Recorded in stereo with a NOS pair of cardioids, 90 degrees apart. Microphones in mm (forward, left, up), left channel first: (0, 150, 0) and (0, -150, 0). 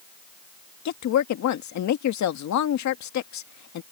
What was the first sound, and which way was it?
A woman speaking, 65° left.